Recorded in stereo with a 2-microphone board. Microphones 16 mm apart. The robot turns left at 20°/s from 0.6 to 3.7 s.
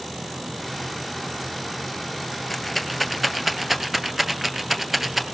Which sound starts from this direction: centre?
A rattle, at 2.5 s.